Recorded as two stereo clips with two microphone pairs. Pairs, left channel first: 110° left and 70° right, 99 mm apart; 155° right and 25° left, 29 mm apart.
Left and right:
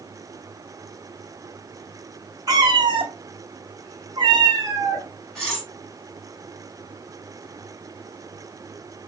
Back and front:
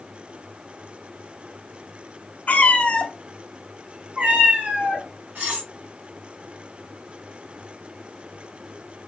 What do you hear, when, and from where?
2.5 s a cat meowing: 120° right, 1.1 m; by 5.0 s 10° right, 1.5 m
5.3 s cutlery clinking: 25° left, 2.5 m